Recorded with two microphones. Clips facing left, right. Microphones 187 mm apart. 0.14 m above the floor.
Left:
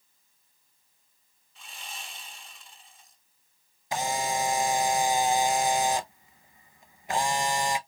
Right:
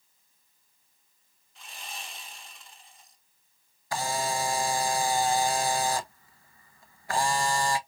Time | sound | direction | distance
1.6 | sawing | centre (ahead or behind) | 1.6 m
3.9 | a camera shutter | 20° left (ahead or behind) | 0.5 m